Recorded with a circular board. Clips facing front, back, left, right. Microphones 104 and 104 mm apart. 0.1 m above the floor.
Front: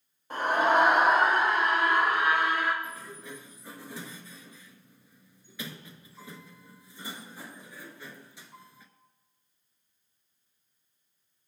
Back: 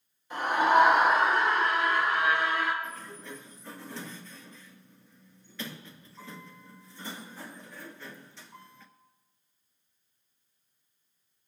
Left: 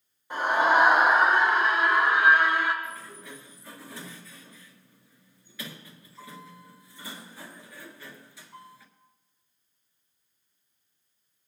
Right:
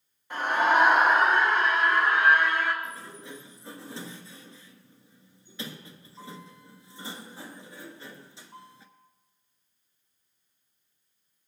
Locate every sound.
0.3 s a scream: 20° left, 3 m
2.8 s a sliding door: 70° right, 1.3 m